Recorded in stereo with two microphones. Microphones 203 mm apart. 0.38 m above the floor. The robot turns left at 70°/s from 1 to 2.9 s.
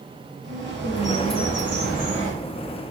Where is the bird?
70° right, 3.5 m; by 2.3 s 160° right, 3.5 m.